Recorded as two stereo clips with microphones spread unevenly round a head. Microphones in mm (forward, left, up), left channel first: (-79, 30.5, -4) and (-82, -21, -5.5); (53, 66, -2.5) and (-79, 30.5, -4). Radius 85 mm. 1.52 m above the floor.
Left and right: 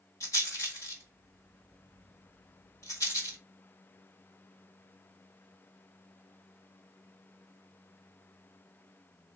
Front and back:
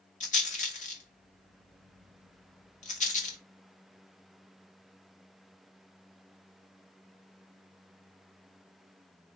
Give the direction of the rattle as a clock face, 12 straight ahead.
11 o'clock.